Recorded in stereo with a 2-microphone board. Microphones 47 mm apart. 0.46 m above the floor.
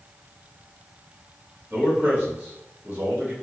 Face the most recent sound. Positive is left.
turn(degrees=-35)  # may be behind; listen again after turning